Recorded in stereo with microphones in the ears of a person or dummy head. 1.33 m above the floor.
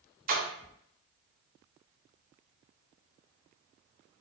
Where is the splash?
40° right (ahead or behind), 0.6 m.